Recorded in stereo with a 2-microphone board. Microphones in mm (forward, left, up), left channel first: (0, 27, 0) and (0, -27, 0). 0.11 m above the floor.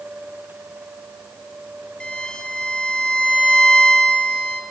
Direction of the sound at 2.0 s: 20° left (ahead or behind).